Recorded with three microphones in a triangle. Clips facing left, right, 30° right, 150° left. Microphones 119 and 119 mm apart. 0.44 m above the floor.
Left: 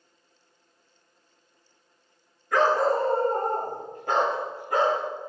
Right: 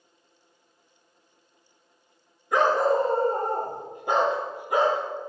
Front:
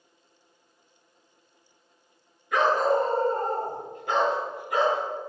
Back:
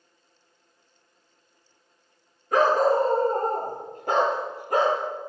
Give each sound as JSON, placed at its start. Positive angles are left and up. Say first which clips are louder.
{"t": 2.5, "sound": "a dog barking", "louder": "right 1 dB, back 3 dB", "azimuth_deg": -160, "distance_m": 1.5}